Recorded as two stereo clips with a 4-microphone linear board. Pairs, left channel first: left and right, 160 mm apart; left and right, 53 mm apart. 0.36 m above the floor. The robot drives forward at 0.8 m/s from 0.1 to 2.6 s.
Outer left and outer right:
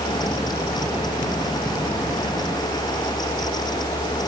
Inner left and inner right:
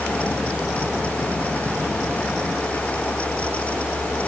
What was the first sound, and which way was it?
Only background noise.